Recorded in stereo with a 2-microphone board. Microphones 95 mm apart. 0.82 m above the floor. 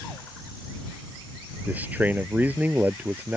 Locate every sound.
1.7 s a man speaking: 20° right (ahead or behind)